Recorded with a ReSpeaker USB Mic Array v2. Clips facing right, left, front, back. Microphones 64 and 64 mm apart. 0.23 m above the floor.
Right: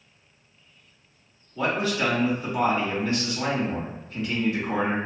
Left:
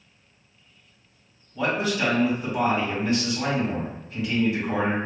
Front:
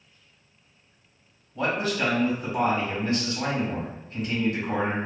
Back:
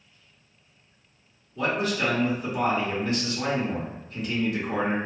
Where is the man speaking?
25° left, 1.7 m.